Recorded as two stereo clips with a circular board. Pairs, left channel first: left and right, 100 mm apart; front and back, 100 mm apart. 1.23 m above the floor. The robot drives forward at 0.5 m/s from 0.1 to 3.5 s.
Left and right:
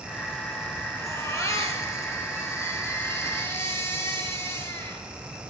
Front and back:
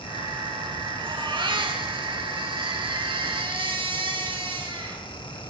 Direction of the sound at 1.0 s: 145° left.